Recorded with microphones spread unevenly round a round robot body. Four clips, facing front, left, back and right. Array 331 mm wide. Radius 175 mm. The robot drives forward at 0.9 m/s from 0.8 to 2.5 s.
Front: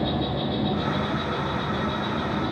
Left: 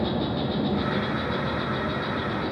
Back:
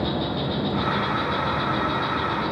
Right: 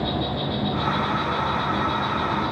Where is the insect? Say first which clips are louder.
Even, even; 135° left, 3.5 m; by 2.5 s 150° left, 4.5 m.